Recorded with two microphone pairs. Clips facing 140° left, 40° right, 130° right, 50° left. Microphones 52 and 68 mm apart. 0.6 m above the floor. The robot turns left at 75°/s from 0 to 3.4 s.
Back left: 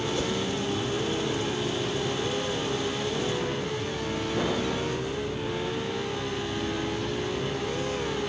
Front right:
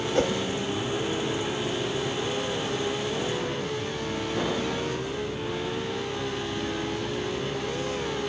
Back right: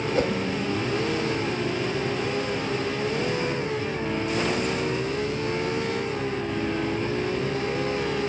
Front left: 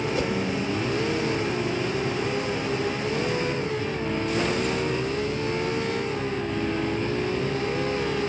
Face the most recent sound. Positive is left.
turn(degrees=40)